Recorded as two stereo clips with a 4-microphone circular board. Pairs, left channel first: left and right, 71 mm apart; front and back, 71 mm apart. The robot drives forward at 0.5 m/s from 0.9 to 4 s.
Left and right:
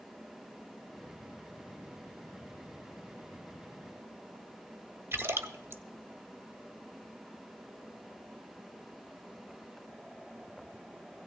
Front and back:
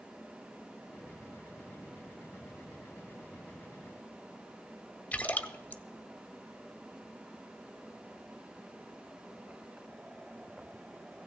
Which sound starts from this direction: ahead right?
A splash, at 5.1 s.